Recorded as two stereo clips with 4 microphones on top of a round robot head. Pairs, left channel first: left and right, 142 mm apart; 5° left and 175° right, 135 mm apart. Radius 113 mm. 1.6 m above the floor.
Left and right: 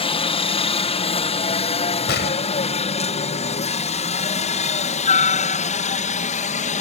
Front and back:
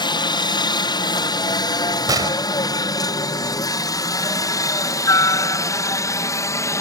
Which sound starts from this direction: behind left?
A gunshot, at 2.1 s.